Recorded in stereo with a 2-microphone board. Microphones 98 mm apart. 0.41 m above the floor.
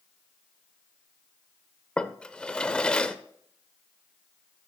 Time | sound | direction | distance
2.0 | a drawer | 10° left (ahead or behind) | 0.7 m